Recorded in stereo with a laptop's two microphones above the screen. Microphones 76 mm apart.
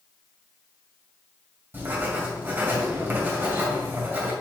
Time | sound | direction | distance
1.7 | writing | 30° right (ahead or behind) | 2.5 m